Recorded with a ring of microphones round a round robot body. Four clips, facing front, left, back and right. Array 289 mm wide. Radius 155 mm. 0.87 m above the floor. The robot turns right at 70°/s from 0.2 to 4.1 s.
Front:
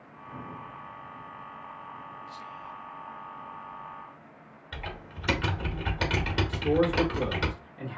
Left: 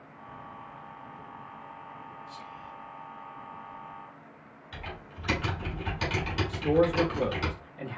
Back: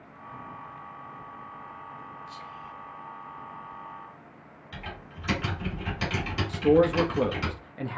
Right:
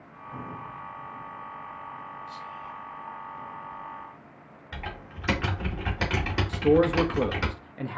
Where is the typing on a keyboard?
60° right, 1.9 m.